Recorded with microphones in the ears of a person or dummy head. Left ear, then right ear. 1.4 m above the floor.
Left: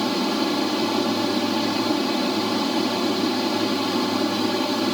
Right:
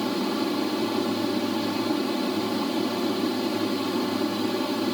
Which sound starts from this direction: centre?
An aircraft, at 0.0 s.